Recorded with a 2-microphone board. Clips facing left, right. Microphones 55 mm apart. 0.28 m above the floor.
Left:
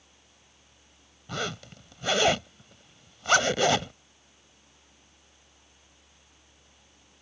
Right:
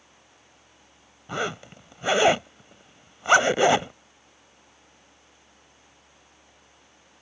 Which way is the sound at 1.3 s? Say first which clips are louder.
Right 4 dB; 20° right (ahead or behind).